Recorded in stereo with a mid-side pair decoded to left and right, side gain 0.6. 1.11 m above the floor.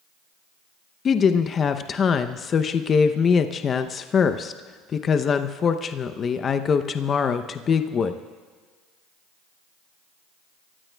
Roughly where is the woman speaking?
Ahead left.